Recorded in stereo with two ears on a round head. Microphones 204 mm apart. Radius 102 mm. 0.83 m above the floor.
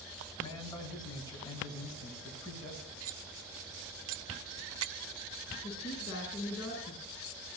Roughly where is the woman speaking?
Left.